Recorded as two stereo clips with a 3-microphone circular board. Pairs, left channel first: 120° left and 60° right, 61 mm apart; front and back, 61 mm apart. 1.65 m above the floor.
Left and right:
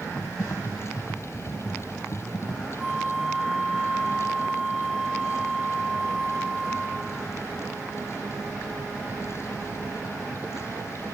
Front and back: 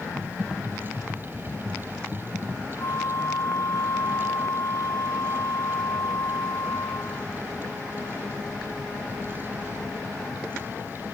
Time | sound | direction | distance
0.2 | typing on a keyboard | 105° left | ?
2.8 | a flute | 25° left | ?